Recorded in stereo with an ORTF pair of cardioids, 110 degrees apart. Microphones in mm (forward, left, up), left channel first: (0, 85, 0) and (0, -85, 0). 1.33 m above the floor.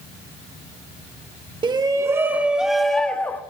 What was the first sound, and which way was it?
A shout, 30° right.